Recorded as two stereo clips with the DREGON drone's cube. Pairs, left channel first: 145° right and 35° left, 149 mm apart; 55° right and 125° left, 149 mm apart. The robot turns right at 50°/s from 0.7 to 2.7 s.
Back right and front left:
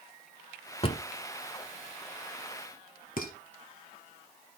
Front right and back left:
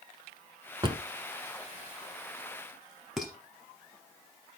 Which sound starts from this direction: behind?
A drawer, at 0.8 s.